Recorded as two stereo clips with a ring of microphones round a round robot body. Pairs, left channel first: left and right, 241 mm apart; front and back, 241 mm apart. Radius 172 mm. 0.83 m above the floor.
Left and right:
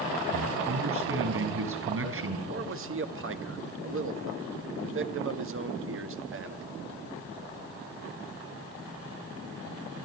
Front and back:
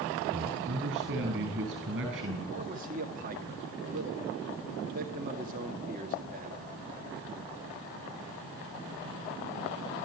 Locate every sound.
0.3 s a man speaking: 120° right, 7.5 m
2.5 s a man speaking: 120° right, 1.5 m